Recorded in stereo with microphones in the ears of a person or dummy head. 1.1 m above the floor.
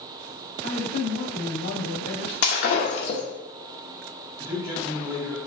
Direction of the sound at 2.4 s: 55° left (ahead or behind).